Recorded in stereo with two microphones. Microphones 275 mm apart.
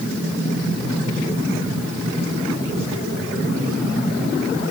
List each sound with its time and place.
Only background noise.